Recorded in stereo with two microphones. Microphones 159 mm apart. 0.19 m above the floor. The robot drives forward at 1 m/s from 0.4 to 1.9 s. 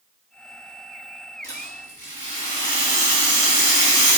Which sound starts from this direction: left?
A rattle, at 1.4 s.